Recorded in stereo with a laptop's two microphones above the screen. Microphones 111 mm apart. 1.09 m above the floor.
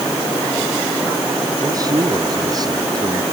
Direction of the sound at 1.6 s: 35° right (ahead or behind).